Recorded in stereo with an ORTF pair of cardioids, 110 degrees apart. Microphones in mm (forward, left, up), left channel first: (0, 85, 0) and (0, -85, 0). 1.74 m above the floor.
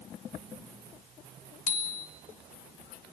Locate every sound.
1.7 s a bicycle bell: 50° left, 3.5 m